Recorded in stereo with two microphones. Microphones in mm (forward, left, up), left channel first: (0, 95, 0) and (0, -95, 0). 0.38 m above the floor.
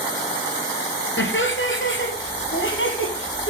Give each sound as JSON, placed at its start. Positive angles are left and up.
{"t": 1.2, "sound": "laughter", "side_deg": 80, "distance_m": 5.5}